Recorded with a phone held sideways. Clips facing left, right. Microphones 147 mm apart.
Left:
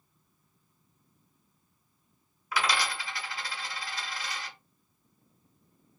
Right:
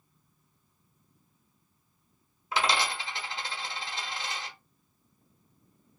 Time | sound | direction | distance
2.5 | a dropped coin | 25° right (ahead or behind) | 0.8 m